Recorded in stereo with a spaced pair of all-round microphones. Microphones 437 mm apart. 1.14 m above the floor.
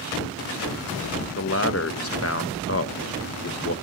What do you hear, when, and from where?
1.4 s a man speaking: 35° left (ahead or behind), 1.0 m